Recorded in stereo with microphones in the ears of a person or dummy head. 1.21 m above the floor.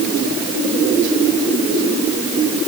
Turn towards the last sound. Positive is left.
No sound to turn to.